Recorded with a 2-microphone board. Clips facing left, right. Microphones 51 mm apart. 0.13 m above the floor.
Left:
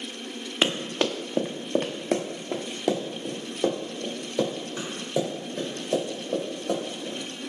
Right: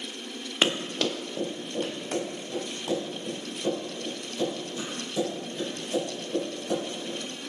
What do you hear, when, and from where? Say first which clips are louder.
0.6 s running footsteps: left 1 dB; centre (ahead or behind), 1.1 m; by 7.2 s 75° left (ahead or behind), 6 m